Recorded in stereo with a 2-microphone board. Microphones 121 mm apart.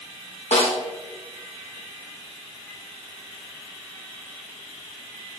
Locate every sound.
0.5 s a snare drum: 70° left (ahead or behind), 2.5 m